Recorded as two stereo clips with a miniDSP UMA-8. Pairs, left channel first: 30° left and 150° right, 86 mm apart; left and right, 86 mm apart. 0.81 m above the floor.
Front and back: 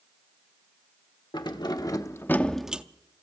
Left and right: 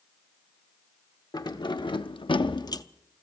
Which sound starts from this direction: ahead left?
Keys jangling, at 1.3 s.